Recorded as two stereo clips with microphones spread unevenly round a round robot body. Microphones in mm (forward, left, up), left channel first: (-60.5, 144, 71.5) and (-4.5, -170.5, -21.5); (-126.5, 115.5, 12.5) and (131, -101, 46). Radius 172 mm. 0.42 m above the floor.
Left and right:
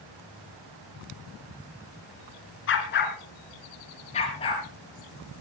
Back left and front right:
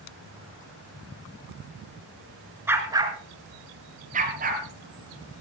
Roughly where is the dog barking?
Ahead left.